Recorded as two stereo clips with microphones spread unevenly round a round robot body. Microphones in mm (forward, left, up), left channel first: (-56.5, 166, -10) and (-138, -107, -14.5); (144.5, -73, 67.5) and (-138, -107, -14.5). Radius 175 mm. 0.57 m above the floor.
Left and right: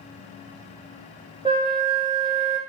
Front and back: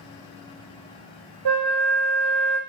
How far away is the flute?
About 1.3 m.